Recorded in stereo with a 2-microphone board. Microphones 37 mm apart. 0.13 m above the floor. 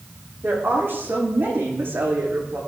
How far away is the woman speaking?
About 8.5 m.